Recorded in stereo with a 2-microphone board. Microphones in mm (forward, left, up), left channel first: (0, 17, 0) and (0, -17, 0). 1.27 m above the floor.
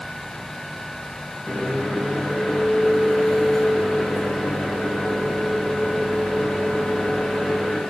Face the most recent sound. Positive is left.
turn(degrees=10)  # may be behind; listen again after turning